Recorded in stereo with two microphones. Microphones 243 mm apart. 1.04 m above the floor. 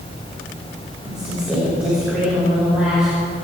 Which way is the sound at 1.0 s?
5° right (ahead or behind).